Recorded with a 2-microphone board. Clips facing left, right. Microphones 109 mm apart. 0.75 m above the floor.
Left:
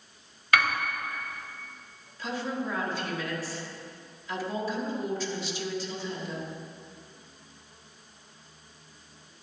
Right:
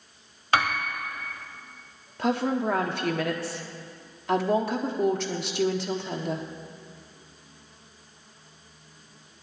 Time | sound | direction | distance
0.5 | a piano | 30° right (ahead or behind) | 1.7 m
2.2 | a woman speaking | 65° right (ahead or behind) | 1.5 m